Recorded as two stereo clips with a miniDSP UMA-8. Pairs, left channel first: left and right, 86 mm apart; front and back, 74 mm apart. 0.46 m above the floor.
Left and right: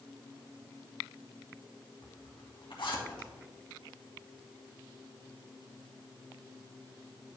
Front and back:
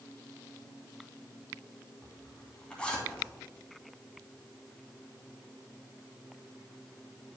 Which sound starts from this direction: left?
A zipper, at 2.0 s.